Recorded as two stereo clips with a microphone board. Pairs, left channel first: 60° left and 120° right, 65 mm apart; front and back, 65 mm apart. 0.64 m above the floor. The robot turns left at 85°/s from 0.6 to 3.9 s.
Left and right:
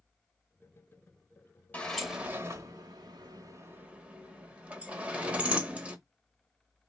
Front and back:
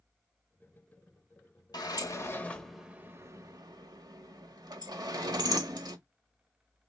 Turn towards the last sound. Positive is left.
turn(degrees=170)